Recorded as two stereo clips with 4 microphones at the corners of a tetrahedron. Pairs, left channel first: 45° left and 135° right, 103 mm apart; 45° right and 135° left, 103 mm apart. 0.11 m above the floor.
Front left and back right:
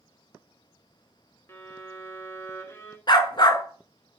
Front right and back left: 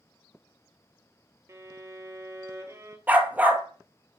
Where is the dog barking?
65° left, 0.9 m.